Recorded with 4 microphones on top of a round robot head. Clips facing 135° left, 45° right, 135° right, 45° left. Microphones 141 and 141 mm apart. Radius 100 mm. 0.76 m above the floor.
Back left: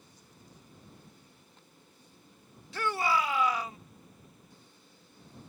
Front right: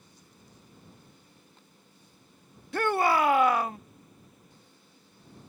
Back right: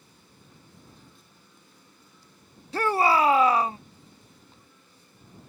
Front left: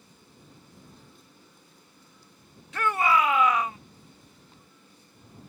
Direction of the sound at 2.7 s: 80° right.